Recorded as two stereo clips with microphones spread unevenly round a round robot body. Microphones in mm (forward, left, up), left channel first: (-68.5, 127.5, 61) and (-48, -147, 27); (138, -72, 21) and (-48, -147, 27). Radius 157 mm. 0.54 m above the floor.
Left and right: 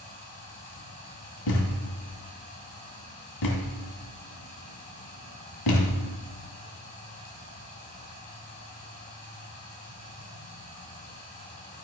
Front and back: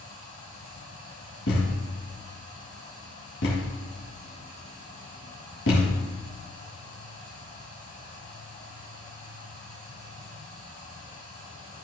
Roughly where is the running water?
Behind.